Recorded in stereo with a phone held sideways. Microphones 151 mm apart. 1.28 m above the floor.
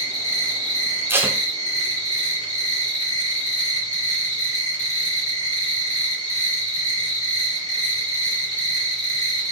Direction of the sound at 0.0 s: 55° left (ahead or behind).